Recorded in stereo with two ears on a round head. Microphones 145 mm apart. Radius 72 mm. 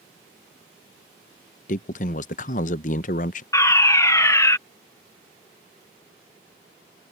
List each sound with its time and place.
1.7 s a man speaking: 55° left (ahead or behind)
3.5 s a fire alarm: 20° left (ahead or behind)